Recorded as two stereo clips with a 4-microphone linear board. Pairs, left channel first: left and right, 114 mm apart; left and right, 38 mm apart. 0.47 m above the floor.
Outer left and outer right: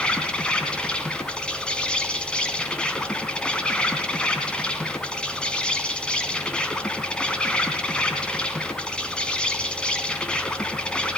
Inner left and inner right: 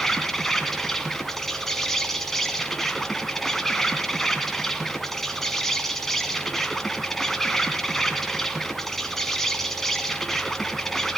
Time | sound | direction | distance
0.0 | an insect | 10° left (ahead or behind) | 2 m